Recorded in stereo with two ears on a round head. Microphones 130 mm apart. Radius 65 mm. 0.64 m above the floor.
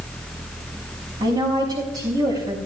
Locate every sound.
1.2 s a woman speaking: 30° right (ahead or behind), 5 m